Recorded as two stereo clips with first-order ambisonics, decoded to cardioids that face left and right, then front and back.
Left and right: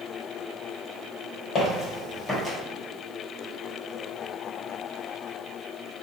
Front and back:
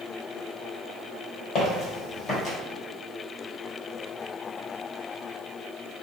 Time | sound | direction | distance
1.6 | footsteps | 35° left | 1.5 m